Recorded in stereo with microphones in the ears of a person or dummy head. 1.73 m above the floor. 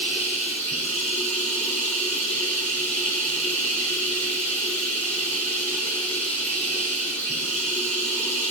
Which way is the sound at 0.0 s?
10° left (ahead or behind).